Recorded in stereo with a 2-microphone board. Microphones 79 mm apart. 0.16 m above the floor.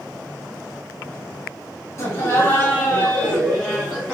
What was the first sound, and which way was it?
Laughter, 35° left (ahead or behind).